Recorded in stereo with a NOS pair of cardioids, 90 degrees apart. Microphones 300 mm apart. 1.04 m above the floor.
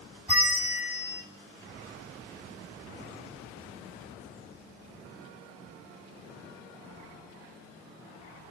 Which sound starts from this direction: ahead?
A bell, at 0.3 s.